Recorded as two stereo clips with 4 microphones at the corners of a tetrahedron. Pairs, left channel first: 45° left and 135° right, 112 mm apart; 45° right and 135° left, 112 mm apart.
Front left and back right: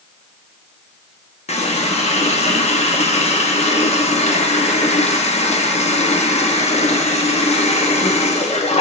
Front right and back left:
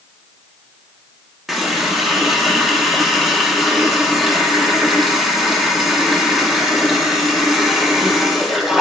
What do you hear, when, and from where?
1.5 s a running tap: 45° left, 0.7 m